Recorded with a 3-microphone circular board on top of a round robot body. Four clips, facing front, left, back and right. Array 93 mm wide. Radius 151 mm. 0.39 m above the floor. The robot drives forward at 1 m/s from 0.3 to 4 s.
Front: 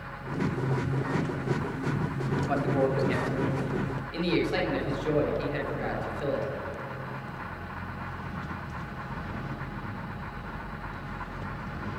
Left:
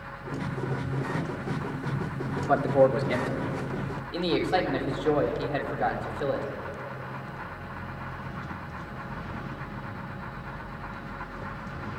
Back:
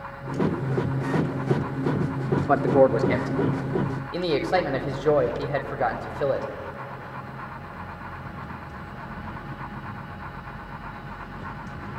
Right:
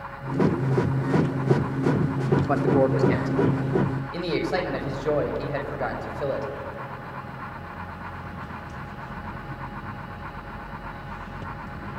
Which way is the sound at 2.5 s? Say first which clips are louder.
Left 2 dB, back 9 dB; 175° right.